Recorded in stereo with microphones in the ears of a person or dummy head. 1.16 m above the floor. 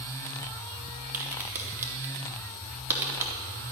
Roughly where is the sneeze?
I don't hear a sneeze.